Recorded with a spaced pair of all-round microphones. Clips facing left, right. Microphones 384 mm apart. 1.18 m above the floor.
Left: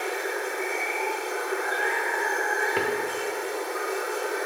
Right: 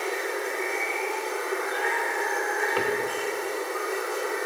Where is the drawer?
30° left (ahead or behind), 1.5 m.